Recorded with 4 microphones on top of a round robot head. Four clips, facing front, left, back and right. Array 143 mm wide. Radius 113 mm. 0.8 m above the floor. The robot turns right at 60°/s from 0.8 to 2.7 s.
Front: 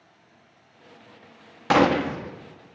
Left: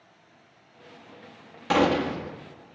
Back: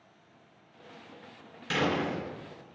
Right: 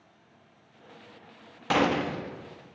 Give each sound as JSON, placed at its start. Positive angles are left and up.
{"t": 1.7, "sound": "a gunshot", "azimuth_deg": 0, "distance_m": 1.0}